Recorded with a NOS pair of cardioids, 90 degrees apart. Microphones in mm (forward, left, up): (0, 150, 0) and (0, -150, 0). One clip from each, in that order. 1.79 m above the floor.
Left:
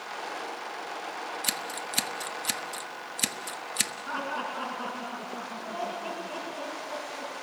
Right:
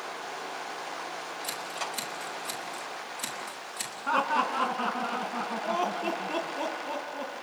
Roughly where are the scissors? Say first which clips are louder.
Left 1 dB; ahead left.